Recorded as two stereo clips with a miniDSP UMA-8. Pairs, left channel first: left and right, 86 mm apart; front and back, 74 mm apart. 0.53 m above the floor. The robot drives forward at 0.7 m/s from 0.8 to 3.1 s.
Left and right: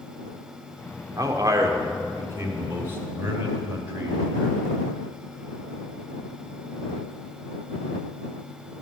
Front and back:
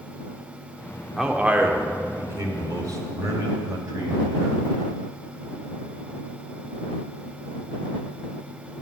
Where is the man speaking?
100° right, 1.2 m; by 4.5 s 150° right, 1.9 m.